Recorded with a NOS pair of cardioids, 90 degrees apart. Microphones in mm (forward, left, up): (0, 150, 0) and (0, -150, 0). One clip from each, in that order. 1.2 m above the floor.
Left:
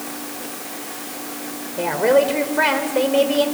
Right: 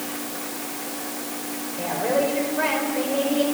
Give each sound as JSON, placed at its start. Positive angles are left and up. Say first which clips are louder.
{"t": 1.8, "sound": "a woman speaking", "louder": "left 7 dB", "azimuth_deg": 65, "distance_m": 4.5}